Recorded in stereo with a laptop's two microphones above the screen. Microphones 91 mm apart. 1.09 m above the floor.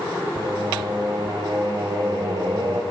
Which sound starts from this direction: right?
Singing, at 0.3 s.